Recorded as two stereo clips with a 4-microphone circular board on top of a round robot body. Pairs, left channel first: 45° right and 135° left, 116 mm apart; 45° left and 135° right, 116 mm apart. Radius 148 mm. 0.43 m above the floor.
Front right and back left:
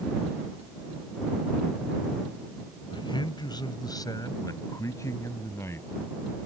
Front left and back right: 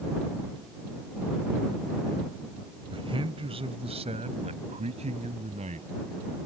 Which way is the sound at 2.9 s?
95° right.